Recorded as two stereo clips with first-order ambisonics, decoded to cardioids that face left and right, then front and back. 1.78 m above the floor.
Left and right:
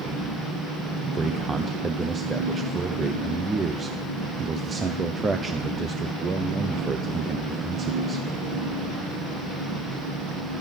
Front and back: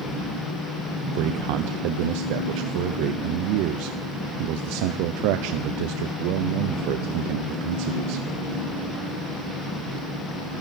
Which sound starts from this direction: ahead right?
An engine running, at 0.0 s.